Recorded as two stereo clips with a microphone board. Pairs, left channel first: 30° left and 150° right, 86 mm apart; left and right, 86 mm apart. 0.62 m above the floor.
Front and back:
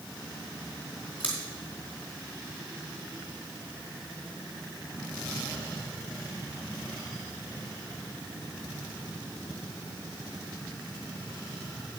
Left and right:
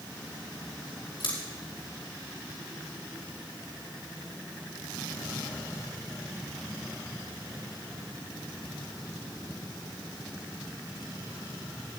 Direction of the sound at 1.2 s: 105° left.